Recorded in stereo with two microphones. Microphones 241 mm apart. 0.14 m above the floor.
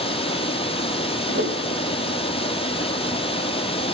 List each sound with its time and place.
0.0 s running water: 25° left (ahead or behind), 1.1 m
1.3 s a whoosh: 55° right (ahead or behind), 1.8 m